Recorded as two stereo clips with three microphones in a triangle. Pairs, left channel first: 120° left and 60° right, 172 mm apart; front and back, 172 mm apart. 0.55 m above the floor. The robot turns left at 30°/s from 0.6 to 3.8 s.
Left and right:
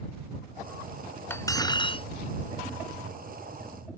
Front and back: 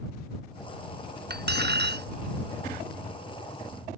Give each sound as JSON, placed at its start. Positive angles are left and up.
{"t": 1.3, "sound": "cutlery clinking", "azimuth_deg": -165}